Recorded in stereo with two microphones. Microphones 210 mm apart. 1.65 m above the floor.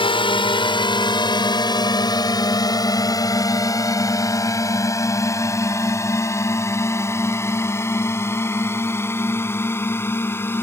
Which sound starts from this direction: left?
A drone, at 0.0 s.